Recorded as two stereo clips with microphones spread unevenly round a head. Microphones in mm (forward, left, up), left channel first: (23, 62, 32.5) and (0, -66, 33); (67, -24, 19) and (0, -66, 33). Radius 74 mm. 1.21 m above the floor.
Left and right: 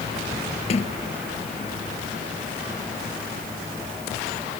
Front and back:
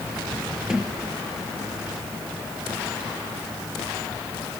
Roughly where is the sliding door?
Behind left.